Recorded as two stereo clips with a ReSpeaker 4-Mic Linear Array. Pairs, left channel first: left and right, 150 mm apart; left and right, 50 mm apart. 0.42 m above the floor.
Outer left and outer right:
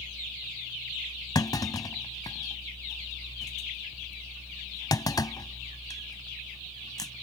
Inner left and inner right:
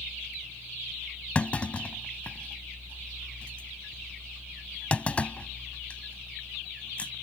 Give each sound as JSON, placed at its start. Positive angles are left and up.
{"t": 1.4, "sound": "a clunk", "side_deg": 25}